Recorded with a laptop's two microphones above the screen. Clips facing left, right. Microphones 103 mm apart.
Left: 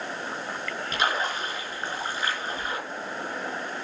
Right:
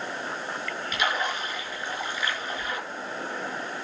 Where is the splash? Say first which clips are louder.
Left 1 dB; 35° left (ahead or behind), 4 m.